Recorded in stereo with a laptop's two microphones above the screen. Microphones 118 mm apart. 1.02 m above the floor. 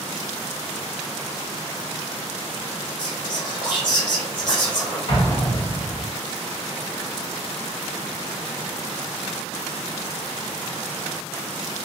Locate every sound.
3.0 s whispering: 30° left (ahead or behind), 1.2 m
5.1 s an explosion: 45° left (ahead or behind), 1.4 m